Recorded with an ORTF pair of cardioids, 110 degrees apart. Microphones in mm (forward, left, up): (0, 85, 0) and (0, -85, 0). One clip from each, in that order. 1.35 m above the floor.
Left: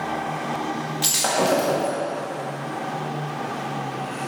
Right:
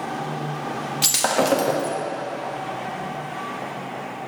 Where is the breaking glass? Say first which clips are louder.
Right 1 dB; 35° right, 1.3 m.